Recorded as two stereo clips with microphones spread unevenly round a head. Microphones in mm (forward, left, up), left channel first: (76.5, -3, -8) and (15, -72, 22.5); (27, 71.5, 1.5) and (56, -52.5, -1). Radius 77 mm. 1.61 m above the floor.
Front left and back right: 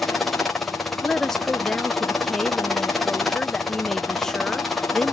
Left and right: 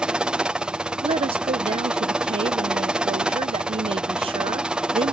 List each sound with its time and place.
0.0 s a helicopter: 5° right
1.0 s a woman speaking: 55° right